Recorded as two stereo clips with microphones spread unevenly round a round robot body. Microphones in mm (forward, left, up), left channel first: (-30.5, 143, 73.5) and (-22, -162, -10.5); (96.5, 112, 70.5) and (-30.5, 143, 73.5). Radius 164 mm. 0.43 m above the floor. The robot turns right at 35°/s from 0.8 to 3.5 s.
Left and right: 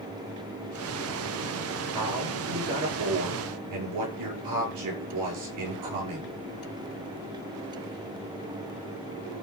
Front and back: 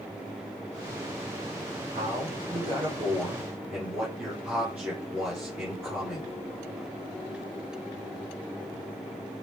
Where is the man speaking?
165° right, 6.5 m; by 6.3 s 110° right, 6.5 m.